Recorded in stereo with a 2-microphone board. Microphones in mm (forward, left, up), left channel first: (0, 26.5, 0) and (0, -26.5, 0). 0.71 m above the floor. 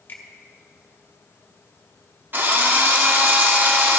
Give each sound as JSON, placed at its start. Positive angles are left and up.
{"t": 0.1, "sound": "a finger snap", "side_deg": 40, "distance_m": 1.4}
{"t": 2.3, "sound": "a drill", "side_deg": -40, "distance_m": 1.1}